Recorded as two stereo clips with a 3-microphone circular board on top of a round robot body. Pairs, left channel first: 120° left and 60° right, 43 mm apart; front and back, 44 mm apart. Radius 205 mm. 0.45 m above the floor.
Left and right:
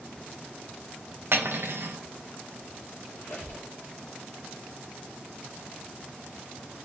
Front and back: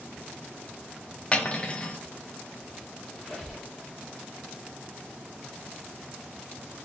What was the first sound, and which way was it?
Cutlery clinking, 60° right.